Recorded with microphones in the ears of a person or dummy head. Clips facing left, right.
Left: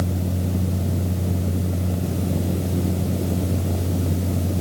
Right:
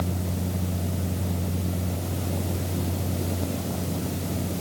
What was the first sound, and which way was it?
Only background noise.